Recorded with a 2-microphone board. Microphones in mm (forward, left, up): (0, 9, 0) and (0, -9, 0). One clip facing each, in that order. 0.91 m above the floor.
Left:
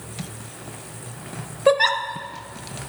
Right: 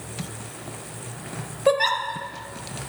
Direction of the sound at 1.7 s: 15° left (ahead or behind).